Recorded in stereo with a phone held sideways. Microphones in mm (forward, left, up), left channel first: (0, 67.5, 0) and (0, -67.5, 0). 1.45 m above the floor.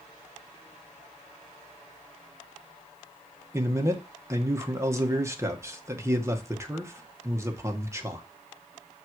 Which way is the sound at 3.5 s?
20° right (ahead or behind).